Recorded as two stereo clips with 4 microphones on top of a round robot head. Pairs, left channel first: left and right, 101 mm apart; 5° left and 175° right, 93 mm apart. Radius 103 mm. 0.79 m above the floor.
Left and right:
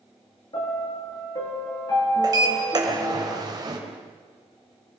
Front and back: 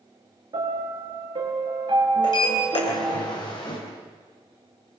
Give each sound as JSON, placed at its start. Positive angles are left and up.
{"t": 0.5, "sound": "a piano", "azimuth_deg": 150, "distance_m": 5.0}
{"t": 2.2, "sound": "a sliding door", "azimuth_deg": -40, "distance_m": 4.0}